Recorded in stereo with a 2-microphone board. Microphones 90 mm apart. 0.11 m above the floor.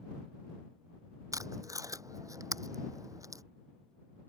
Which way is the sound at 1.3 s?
40° right (ahead or behind).